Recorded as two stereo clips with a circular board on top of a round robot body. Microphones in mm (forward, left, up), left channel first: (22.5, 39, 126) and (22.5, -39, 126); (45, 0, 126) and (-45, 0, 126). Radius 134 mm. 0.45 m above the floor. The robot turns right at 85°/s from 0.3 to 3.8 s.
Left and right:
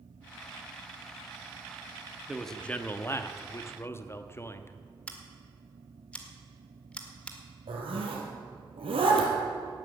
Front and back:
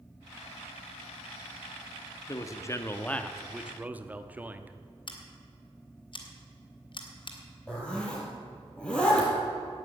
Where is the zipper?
80° right, 3 m.